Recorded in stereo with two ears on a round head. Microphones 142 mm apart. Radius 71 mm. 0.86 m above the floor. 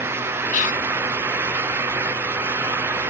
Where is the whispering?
50° left (ahead or behind), 0.6 m.